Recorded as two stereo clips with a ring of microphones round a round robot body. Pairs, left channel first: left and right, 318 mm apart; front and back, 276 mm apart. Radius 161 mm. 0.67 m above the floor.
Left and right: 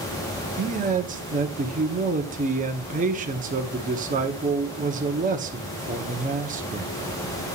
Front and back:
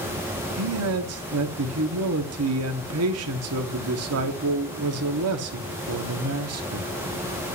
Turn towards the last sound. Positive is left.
turn(degrees=-155)